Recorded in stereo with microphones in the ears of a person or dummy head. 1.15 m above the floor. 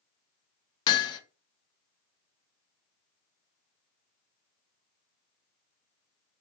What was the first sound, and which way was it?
Hammering, 30° left (ahead or behind).